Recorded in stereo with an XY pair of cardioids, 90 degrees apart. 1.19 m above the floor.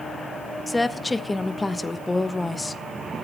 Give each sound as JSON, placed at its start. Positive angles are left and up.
{"t": 0.7, "sound": "a woman speaking", "azimuth_deg": 20, "distance_m": 1.0}